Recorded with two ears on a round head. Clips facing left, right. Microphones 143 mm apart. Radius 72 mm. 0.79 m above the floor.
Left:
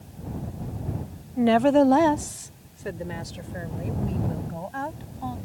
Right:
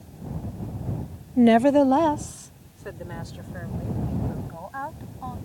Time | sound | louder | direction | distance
1.4 | a woman speaking | right 2 dB | 35° right (ahead or behind) | ?